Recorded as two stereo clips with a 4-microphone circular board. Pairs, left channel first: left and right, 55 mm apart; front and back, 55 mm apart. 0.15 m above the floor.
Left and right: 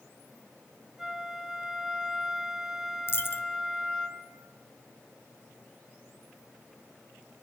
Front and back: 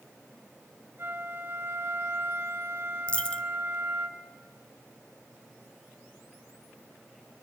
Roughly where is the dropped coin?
Ahead left.